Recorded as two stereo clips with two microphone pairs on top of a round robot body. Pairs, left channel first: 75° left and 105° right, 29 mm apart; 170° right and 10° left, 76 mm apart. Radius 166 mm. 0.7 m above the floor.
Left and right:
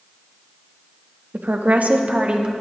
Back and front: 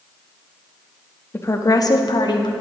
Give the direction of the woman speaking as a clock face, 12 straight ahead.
4 o'clock.